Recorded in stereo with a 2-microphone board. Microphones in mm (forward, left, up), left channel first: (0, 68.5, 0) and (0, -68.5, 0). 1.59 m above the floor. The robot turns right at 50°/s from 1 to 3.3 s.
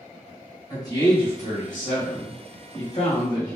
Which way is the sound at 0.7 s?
30° left.